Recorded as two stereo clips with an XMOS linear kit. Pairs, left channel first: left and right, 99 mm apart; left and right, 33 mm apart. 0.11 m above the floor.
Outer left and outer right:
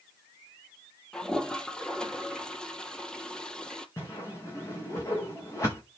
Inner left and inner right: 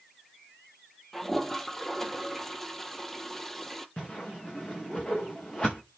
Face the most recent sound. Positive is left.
turn(degrees=35)  # may be behind; listen again after turning